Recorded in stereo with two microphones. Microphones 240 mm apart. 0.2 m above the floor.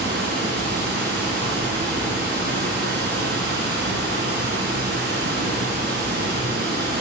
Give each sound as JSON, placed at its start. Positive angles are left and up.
{"t": 0.0, "sound": "running water", "side_deg": -50, "distance_m": 1.7}